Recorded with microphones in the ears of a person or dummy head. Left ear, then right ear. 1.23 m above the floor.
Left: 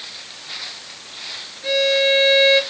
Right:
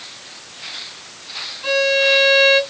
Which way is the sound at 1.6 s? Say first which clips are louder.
Right 1 dB; 50° right (ahead or behind).